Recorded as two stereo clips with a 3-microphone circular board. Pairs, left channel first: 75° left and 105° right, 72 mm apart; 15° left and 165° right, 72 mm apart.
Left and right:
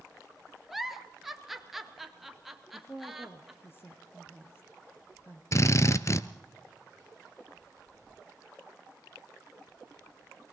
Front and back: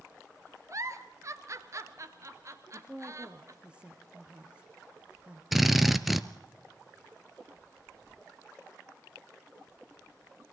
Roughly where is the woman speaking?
Behind left.